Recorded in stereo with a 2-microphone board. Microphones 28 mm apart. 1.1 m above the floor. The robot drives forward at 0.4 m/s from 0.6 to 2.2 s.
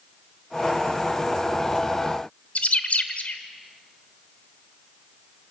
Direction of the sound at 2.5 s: 55° left (ahead or behind).